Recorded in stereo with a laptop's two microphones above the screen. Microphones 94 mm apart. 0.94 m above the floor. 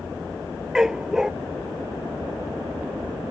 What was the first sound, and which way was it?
A dog barking, 5° right (ahead or behind).